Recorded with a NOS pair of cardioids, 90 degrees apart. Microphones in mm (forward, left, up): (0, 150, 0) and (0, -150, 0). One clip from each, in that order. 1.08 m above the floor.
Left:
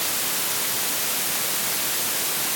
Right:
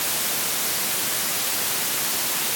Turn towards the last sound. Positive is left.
No sound to turn to.